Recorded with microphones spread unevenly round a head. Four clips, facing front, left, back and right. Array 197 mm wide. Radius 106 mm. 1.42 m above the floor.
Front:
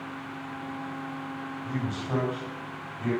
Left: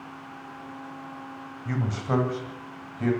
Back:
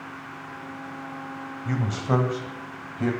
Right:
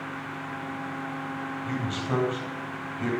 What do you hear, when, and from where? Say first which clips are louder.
1.6 s a man speaking: left 3 dB, back 7 dB; 165° left, 8 m; by 3.1 s straight behind, 9 m